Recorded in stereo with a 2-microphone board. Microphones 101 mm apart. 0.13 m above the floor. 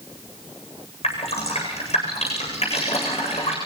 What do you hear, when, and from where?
1.0 s dripping: 80° left, 8.5 m